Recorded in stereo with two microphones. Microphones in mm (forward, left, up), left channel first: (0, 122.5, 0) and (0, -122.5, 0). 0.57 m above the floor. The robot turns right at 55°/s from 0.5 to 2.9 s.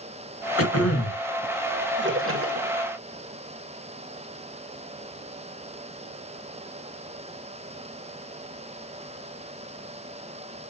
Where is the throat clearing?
65° left, 1.4 m; by 1.2 s 100° left, 1.4 m.